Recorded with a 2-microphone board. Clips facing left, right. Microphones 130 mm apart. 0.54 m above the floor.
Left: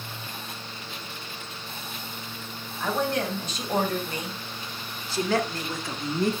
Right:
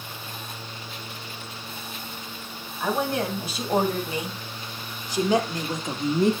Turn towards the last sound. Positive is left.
turn(degrees=-20)  # may be behind; listen again after turning